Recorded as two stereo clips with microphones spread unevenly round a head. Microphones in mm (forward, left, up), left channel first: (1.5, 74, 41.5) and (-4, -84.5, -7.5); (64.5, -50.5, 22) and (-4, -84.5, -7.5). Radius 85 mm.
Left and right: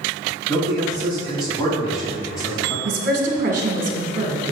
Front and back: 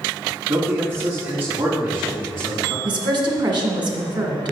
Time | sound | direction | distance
0.5 | a man speaking | 160° left | 3 m
2.9 | a woman speaking | 135° right | 1.7 m